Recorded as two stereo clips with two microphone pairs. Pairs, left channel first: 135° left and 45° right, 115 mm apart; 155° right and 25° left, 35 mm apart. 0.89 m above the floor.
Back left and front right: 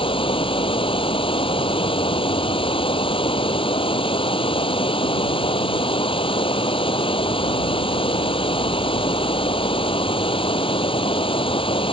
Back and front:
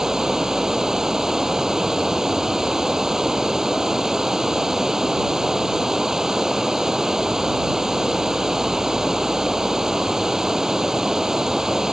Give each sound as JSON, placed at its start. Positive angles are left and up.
{"t": 0.0, "sound": "running water", "azimuth_deg": 95}